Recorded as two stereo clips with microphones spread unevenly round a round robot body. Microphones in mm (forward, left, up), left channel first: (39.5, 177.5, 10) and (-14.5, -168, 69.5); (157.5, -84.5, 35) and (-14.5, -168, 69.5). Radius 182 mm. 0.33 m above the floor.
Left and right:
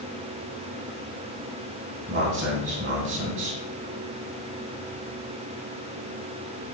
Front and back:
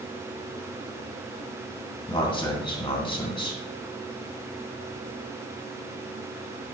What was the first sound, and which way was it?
A man speaking, 40° right.